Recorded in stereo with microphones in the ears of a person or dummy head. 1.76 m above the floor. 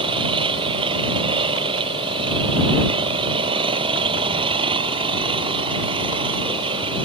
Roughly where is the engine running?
Right.